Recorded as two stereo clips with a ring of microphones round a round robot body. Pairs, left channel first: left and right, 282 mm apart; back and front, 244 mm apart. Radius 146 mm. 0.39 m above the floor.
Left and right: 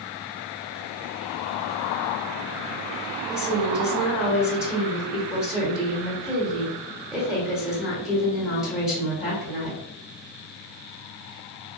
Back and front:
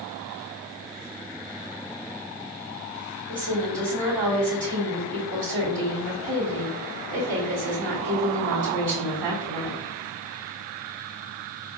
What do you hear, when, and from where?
3.3 s a woman speaking: 5° right, 1.6 m